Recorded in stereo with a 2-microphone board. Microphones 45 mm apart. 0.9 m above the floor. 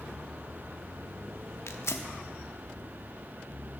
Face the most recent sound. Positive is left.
turn(degrees=75)  # may be behind; listen again after turning